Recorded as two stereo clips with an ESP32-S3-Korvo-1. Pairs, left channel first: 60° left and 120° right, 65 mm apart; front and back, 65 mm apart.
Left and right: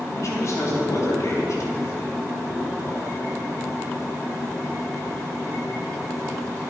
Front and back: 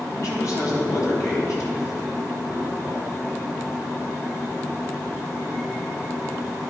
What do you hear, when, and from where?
0.1 s a man speaking: 30° left, 3 m